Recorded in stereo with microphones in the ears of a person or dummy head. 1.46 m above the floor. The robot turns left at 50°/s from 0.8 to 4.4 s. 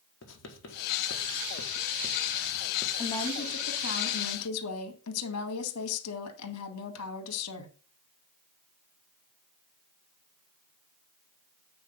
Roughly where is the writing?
Left.